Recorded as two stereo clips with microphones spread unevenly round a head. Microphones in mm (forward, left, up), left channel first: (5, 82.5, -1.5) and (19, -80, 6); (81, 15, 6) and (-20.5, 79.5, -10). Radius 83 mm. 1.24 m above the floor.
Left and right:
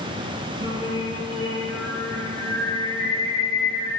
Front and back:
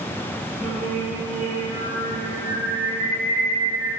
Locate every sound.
0.6 s singing: 130° right, 5 m